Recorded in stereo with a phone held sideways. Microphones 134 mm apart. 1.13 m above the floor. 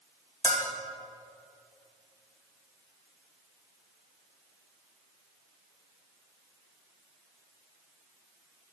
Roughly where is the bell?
Left.